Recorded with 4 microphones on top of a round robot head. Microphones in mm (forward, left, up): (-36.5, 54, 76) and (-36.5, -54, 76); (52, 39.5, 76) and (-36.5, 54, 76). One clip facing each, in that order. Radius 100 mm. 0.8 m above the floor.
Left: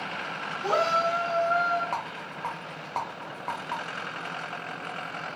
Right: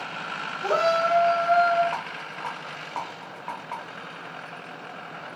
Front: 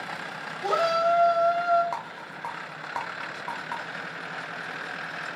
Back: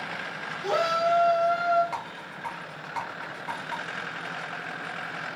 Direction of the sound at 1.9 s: 25° left.